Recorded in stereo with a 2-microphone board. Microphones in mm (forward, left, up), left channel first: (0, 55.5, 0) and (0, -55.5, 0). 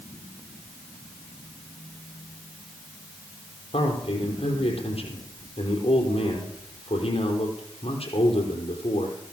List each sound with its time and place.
3.7 s a man speaking: 65° left (ahead or behind), 4.5 m